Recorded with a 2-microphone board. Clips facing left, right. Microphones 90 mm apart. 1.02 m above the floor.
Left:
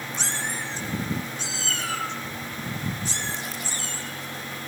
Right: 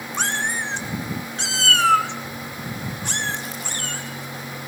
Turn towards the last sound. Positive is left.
turn(degrees=-55)  # may be behind; listen again after turning